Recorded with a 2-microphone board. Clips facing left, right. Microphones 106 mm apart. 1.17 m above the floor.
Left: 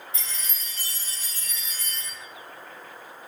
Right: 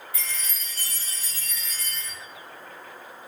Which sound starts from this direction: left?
A chime, at 0.1 s.